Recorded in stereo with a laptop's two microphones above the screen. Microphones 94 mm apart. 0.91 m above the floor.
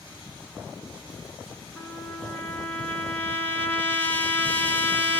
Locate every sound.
1.8 s a trumpet: 20° left (ahead or behind), 2.5 m